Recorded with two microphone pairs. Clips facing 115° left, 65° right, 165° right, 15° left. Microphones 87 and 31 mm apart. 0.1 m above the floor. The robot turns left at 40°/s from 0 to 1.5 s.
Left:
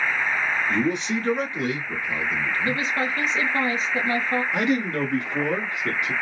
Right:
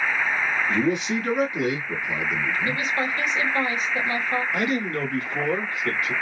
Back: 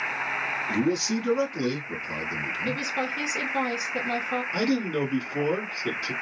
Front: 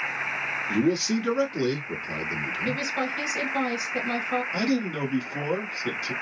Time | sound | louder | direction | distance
0.7 | a man speaking | right 2 dB, front 3 dB | 25° left | 1.3 m
2.6 | a woman speaking | left 1 dB, front 1 dB | 100° left | 1.5 m
4.5 | a man speaking | left 2 dB, back 1 dB | 150° left | 1.1 m